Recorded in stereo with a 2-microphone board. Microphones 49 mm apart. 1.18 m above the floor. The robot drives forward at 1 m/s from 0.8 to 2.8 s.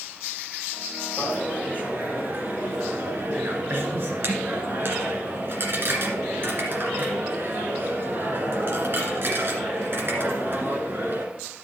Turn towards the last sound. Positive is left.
turn(degrees=-50)  # may be behind; listen again after turning